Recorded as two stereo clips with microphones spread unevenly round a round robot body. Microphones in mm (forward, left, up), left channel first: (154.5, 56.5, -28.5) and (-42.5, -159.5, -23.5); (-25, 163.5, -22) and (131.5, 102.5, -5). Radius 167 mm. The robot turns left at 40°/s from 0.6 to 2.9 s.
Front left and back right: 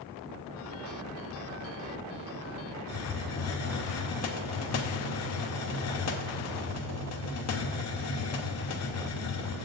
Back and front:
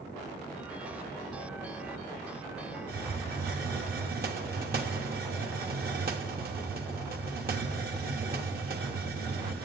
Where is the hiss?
10° left, 1.0 m.